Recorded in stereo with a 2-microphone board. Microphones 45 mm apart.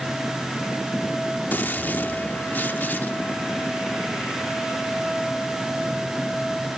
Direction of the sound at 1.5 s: 50° left (ahead or behind).